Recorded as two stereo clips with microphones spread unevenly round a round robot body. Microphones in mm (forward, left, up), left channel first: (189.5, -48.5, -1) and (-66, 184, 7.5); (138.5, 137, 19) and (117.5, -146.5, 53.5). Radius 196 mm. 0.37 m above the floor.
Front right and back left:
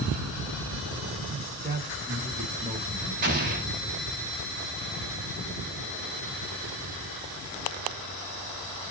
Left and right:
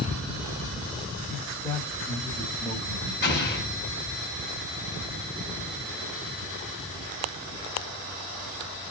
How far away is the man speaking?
About 1.5 m.